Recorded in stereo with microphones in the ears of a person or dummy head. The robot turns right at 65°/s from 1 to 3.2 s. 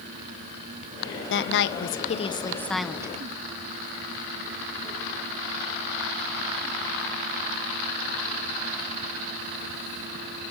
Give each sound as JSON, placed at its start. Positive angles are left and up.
{"t": 1.3, "sound": "a woman speaking", "azimuth_deg": 80, "distance_m": 1.3}